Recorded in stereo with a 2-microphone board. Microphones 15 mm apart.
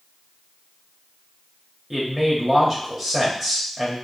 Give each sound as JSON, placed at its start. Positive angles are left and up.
{"t": 1.9, "sound": "a man speaking", "side_deg": -20, "distance_m": 1.6}